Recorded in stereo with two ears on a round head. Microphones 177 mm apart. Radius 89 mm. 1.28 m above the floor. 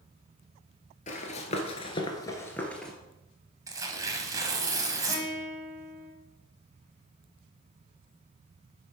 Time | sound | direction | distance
1.1 | running footsteps | 35° left (ahead or behind) | 1.7 m
3.7 | tearing paper | 20° right (ahead or behind) | 1.4 m
5.1 | a guitar | 10° left (ahead or behind) | 4.5 m